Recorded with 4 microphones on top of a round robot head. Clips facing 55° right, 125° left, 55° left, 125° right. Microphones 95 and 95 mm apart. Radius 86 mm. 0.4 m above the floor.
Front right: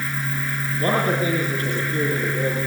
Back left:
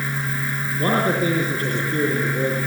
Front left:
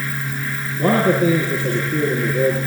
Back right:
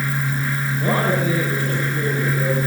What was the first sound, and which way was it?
A man speaking, 70° left.